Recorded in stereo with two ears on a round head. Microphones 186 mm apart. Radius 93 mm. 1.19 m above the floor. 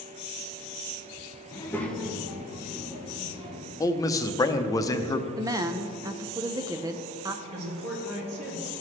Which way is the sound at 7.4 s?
65° right (ahead or behind).